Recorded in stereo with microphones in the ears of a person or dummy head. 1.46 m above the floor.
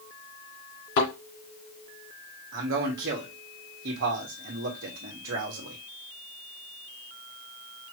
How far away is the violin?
I don't hear a violin.